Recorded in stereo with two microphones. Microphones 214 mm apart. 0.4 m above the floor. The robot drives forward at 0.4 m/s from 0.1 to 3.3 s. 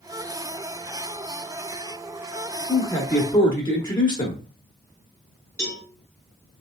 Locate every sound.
2.7 s a man speaking: 20° left (ahead or behind), 0.9 m
5.6 s a cowbell: 15° left (ahead or behind), 2 m